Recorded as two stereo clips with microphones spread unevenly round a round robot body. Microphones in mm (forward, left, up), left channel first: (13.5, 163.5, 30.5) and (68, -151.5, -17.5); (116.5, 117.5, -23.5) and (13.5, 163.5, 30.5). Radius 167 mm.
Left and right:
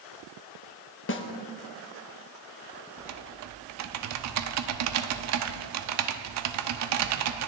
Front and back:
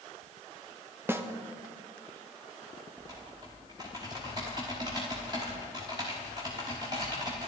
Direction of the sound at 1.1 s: 60° left.